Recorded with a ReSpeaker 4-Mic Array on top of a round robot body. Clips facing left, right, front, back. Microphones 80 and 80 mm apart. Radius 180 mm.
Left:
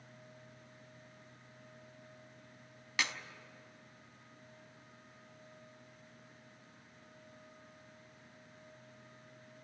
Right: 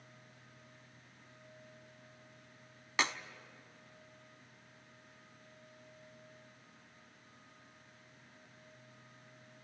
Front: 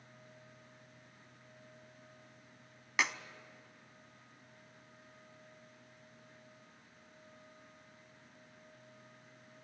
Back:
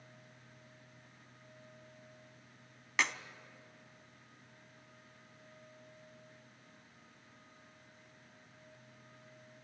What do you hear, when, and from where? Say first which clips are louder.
3.0 s a clap: right 3 dB, even; 80° right, 1.3 m